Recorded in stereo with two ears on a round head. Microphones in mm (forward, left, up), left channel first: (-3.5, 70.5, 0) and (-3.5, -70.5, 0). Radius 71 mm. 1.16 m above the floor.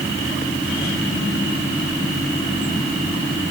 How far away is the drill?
No drill in this recording.